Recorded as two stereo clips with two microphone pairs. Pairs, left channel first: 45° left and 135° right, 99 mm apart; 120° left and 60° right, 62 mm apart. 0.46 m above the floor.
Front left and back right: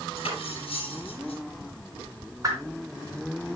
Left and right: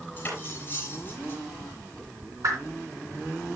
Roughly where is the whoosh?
Right.